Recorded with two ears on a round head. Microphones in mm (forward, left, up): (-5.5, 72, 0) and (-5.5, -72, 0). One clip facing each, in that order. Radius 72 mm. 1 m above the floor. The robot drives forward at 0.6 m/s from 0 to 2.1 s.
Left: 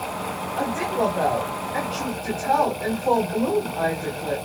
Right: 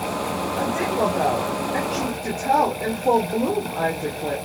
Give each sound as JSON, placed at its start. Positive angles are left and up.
{"t": 0.6, "sound": "a woman speaking", "side_deg": -25, "distance_m": 4.0}